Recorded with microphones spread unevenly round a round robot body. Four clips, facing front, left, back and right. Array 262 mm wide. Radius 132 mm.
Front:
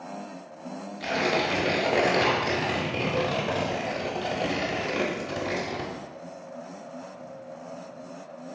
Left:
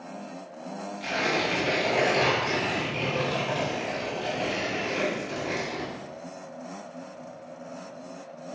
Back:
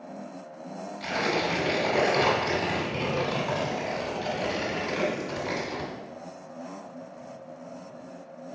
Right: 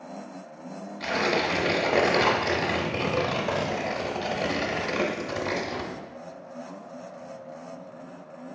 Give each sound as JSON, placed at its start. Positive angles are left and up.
{"t": 1.0, "sound": "tearing paper", "azimuth_deg": -45, "distance_m": 0.8}